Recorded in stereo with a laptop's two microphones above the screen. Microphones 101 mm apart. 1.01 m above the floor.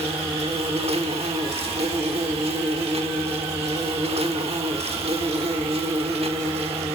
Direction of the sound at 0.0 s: 75° right (ahead or behind).